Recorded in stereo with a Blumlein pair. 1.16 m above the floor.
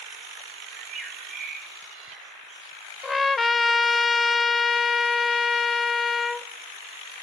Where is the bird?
30° right, 8.5 m.